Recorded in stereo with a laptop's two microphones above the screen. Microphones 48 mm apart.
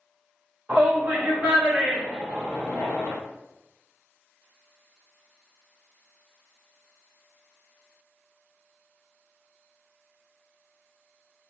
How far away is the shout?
About 1.1 m.